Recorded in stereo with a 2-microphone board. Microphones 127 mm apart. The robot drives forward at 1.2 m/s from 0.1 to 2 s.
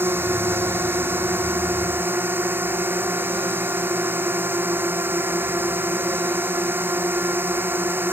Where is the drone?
15° right (ahead or behind).